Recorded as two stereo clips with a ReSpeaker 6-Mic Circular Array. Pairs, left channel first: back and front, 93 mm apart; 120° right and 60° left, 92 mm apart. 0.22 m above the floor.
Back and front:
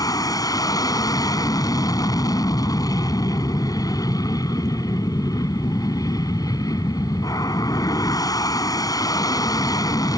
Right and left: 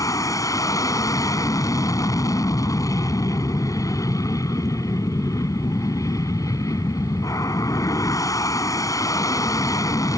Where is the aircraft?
155° right.